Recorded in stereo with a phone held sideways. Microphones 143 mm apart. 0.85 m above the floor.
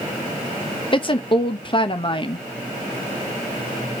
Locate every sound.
0.9 s a woman speaking: 35° left (ahead or behind), 0.9 m